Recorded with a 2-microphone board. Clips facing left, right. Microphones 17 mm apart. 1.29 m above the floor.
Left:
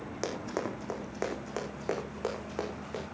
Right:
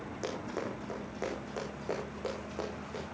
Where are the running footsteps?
35° left (ahead or behind), 4.5 m; by 3.0 s 30° left (ahead or behind), 6.5 m.